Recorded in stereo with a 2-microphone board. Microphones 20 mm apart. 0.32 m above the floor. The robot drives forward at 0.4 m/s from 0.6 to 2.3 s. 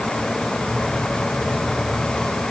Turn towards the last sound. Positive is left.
No sound to turn to.